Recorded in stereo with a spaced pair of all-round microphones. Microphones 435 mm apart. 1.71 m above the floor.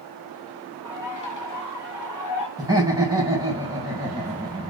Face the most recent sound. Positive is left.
turn(degrees=-10)  # may be behind; listen again after turning